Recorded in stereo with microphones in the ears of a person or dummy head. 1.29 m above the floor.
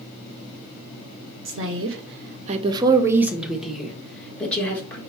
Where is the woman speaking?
60° right (ahead or behind), 0.8 m; by 5.0 s 10° left (ahead or behind), 2 m.